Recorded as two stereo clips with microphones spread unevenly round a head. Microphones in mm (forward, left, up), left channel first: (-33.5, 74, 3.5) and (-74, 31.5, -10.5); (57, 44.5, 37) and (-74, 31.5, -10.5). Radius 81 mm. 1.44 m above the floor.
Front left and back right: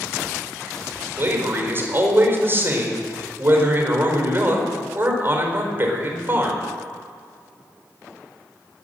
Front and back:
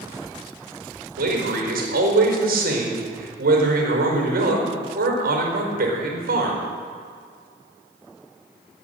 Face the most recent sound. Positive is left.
turn(degrees=170)